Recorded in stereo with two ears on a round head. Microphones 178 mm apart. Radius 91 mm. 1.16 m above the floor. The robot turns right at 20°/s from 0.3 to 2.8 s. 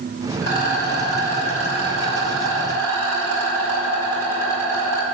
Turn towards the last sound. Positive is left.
turn(degrees=165)